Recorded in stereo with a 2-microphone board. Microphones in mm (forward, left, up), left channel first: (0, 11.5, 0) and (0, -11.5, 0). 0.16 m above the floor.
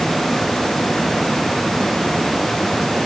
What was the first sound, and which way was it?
Only background noise.